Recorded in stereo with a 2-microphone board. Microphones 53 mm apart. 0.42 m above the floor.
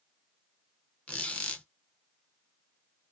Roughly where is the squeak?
Left.